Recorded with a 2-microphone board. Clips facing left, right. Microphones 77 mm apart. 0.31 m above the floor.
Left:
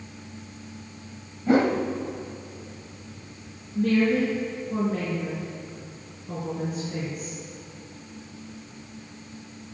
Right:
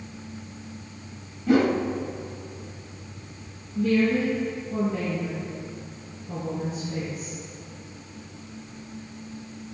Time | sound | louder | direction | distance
1.5 | a whoosh | even | 30° left (ahead or behind) | 1.0 m
3.8 | a woman speaking | even | 60° left (ahead or behind) | 4.5 m